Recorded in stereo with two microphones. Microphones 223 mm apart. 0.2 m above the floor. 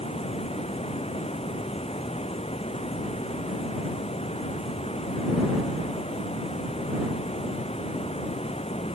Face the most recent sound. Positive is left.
turn(degrees=25)  # may be behind; listen again after turning